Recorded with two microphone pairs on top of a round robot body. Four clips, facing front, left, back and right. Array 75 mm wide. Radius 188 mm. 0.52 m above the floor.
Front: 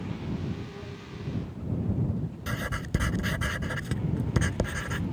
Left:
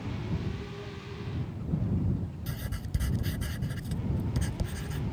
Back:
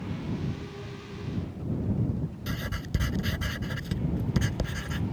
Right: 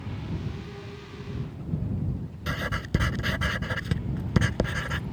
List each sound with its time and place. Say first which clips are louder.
2.5 s writing: right 9 dB, front 6 dB; 65° right